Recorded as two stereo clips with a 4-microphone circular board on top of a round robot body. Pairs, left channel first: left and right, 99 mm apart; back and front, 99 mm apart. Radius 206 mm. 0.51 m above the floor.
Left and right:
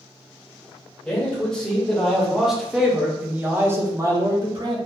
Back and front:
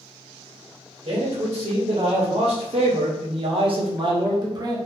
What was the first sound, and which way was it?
A man speaking, 10° left.